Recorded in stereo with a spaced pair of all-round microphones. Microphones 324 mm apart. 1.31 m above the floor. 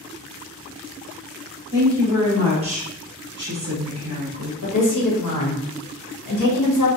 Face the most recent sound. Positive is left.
turn(degrees=70)  # may be behind; listen again after turning